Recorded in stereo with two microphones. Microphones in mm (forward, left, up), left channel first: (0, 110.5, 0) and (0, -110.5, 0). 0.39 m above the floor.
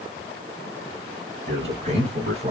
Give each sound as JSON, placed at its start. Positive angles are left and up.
{"t": 1.5, "sound": "a man speaking", "side_deg": -30, "distance_m": 3.0}